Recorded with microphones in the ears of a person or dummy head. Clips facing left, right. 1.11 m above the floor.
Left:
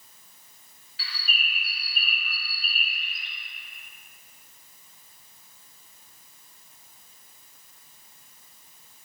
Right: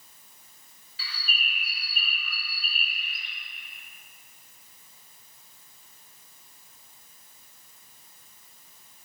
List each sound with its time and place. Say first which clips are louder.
1.0 s a bird: left 1 dB; 75° right (ahead or behind), 0.8 m